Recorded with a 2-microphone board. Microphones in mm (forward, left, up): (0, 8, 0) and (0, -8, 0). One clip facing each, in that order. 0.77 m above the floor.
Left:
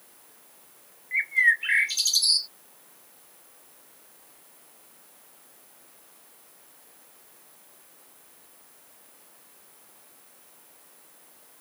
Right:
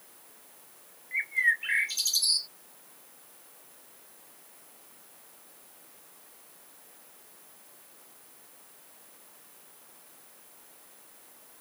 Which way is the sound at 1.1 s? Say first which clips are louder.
Left 5 dB; 25° left (ahead or behind).